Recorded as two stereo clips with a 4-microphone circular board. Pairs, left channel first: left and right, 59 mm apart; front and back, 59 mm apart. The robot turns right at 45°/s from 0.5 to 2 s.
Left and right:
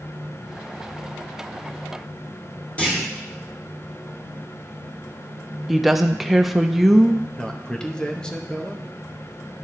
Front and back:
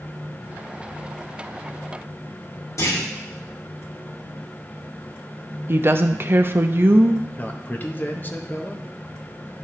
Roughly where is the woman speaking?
Behind.